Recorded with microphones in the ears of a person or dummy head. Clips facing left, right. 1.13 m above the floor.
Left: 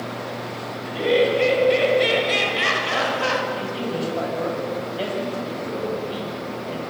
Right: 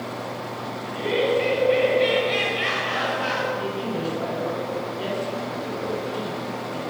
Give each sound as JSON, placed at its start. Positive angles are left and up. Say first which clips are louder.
{"t": 0.8, "sound": "laughter", "louder": "left 4 dB", "side_deg": 55, "distance_m": 6.0}
{"t": 3.5, "sound": "a man speaking", "louder": "left 1 dB", "side_deg": 80, "distance_m": 7.5}